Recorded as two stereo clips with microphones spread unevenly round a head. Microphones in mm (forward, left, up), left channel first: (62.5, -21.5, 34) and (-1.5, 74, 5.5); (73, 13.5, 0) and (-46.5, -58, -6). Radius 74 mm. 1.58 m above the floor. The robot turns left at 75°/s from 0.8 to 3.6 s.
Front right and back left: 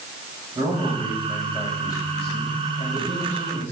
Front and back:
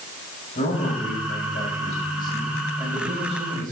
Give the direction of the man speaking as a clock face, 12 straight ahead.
10 o'clock.